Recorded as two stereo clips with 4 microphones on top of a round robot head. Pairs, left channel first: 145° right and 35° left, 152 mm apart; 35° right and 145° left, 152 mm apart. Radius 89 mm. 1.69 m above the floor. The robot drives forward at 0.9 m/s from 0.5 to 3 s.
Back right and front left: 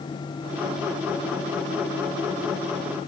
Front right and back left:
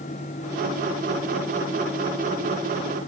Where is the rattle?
No rattle in this recording.